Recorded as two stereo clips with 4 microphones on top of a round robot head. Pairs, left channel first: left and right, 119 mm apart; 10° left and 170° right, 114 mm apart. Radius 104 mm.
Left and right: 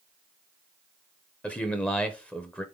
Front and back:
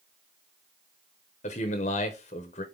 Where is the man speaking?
10° left, 0.7 m.